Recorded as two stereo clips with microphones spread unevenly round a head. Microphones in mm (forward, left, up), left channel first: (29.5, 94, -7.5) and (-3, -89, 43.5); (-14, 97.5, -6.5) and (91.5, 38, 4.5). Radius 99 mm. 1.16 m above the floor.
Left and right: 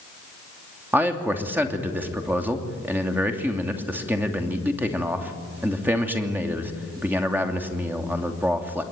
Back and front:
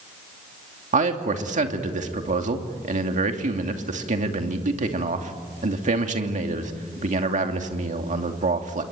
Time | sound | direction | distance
0.9 | a man speaking | 15° right | 2.5 m